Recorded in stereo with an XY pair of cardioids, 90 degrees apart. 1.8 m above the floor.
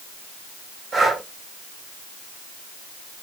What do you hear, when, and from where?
0.9 s breathing: 60° right, 2 m